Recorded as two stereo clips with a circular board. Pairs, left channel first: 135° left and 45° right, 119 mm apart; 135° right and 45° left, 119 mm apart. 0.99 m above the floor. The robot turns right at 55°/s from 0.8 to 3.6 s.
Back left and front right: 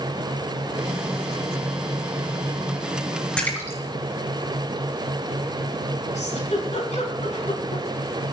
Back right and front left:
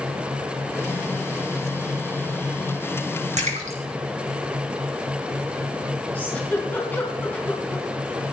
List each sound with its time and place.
3.4 s a splash: 55° left, 3 m; by 3.8 s 65° left, 3 m
6.2 s a giggle: 150° left, 3.5 m